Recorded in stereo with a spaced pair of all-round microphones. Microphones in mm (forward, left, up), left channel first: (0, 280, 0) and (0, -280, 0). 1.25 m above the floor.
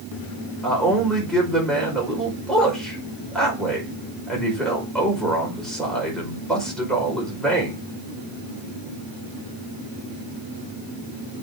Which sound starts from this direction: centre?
A man speaking, at 0.6 s.